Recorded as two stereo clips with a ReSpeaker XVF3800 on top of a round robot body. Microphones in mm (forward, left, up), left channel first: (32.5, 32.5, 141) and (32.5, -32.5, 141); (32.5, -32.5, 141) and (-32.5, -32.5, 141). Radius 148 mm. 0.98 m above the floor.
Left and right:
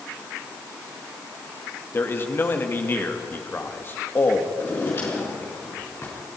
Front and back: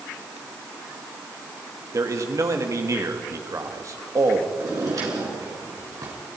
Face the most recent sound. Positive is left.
turn(degrees=145)